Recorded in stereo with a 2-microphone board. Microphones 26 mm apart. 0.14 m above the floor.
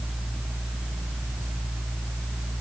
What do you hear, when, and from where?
Only background noise.